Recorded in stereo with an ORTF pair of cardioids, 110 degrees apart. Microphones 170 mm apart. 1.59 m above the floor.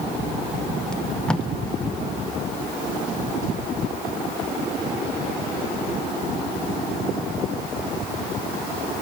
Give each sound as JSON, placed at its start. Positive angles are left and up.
{"t": 0.9, "sound": "tape being pulled", "azimuth_deg": 5, "distance_m": 1.6}